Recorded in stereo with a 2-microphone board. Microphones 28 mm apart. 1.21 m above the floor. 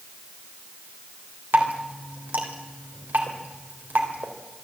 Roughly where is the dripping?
Right.